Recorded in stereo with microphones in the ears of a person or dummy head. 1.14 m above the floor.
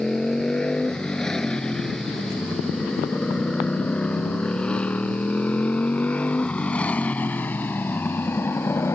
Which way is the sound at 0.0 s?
Centre (ahead or behind).